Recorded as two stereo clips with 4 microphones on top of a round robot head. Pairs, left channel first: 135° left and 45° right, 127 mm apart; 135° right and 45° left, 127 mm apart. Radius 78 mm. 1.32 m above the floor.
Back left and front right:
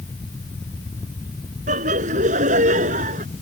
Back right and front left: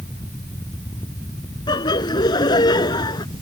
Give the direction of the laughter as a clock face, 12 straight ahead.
3 o'clock.